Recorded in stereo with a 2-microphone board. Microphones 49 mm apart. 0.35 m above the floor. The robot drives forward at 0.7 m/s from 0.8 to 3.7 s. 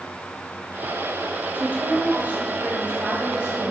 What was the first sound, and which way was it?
A woman speaking, 40° right (ahead or behind).